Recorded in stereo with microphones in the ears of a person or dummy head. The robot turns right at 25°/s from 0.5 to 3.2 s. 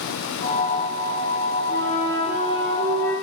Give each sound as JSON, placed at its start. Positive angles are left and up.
{"t": 1.7, "sound": "a flute", "azimuth_deg": -165, "distance_m": 2.0}